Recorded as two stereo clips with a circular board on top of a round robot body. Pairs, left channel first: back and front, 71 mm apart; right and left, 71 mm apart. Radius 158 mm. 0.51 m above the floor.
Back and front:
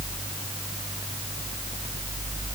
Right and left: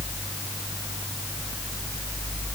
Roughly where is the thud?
No thud in this recording.